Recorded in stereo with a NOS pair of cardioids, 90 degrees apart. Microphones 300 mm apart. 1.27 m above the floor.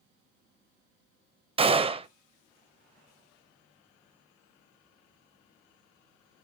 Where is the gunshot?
20° right, 0.5 m.